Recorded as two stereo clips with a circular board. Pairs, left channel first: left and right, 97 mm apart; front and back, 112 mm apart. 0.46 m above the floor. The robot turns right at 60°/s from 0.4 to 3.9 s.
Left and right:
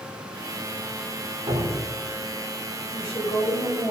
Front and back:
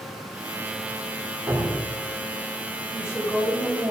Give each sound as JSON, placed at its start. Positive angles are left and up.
{"t": 1.5, "sound": "dripping", "azimuth_deg": -90, "distance_m": 8.0}
{"t": 2.9, "sound": "a woman speaking", "azimuth_deg": 60, "distance_m": 6.0}